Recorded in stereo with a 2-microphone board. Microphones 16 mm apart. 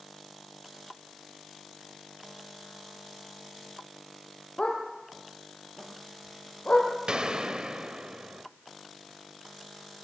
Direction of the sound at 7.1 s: 70° right (ahead or behind).